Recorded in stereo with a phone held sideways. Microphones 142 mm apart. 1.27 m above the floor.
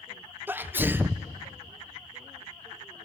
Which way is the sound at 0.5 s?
15° right (ahead or behind).